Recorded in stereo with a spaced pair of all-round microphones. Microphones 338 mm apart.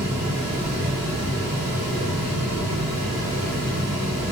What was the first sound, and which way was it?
A fan, 20° right (ahead or behind).